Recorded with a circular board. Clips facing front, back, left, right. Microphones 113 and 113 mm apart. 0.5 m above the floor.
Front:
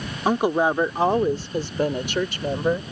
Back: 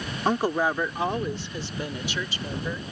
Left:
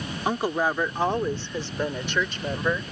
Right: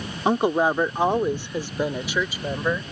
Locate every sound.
0.2 s a woman speaking: 65° right; by 2.8 s 5° right